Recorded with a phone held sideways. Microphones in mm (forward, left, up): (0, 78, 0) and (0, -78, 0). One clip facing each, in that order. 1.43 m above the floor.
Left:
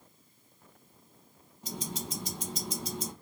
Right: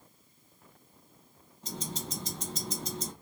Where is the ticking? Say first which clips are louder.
Left 1 dB; 10° left (ahead or behind), 1.3 m.